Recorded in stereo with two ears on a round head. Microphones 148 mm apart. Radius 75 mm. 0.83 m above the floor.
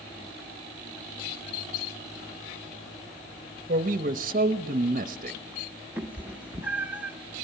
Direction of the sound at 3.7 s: 50° right (ahead or behind).